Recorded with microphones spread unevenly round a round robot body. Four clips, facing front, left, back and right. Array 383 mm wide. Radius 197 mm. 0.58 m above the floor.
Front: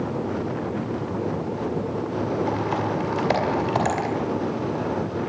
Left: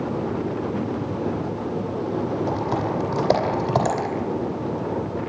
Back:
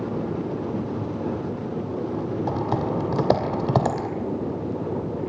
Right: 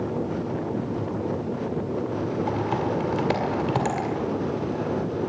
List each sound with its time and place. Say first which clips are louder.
2.5 s typing on a keyboard: left 1 dB, even; 165° left, 2 m